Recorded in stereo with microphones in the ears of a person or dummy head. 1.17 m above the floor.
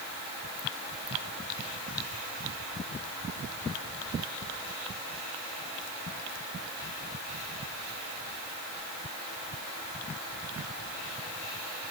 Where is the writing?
I don't hear writing.